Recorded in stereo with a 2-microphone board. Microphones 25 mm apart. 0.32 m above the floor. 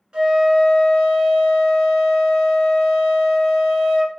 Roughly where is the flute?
Right.